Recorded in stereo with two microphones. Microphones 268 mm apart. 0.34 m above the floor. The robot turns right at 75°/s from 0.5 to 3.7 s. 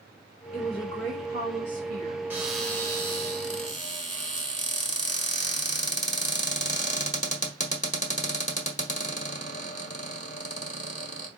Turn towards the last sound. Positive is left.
turn(degrees=25)  # may be behind; listen again after turning